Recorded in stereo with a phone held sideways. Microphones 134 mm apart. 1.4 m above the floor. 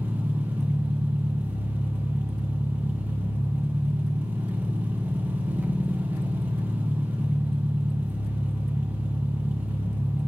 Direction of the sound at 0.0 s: 10° right (ahead or behind).